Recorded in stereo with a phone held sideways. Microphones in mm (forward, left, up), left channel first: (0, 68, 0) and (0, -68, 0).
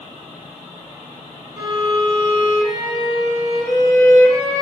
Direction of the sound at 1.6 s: 30° right (ahead or behind).